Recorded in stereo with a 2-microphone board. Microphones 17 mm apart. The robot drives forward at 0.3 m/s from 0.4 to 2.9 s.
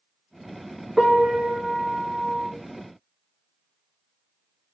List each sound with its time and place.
1.0 s a piano: 25° right (ahead or behind), 1.7 m